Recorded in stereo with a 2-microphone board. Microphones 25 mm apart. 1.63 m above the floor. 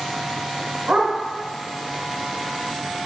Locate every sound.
0.9 s a dog barking: 65° right (ahead or behind), 3 m